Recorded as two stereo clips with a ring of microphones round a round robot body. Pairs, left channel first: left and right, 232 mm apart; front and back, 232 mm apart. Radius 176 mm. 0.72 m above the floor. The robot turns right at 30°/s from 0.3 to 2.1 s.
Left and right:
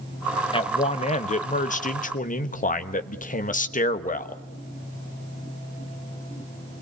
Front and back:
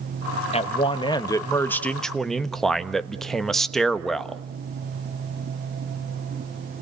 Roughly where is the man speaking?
Ahead left.